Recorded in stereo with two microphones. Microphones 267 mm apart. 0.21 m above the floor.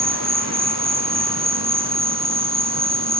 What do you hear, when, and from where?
0.0 s an insect: 65° right (ahead or behind)